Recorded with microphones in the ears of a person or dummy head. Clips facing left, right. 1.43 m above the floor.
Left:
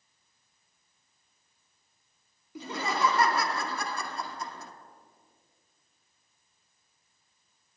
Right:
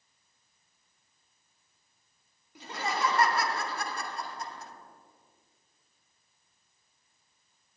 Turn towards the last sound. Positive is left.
turn(degrees=70)  # may be behind; listen again after turning